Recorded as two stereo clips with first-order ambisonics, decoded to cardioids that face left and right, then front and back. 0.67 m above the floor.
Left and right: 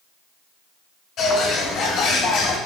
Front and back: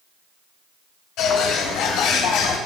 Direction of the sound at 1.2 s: 35° left.